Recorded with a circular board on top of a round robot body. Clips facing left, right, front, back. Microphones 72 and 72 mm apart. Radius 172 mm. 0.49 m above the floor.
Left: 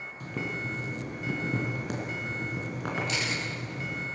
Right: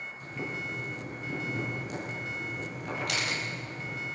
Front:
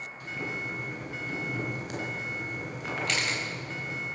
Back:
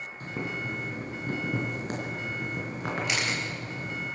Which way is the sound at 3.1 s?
100° right.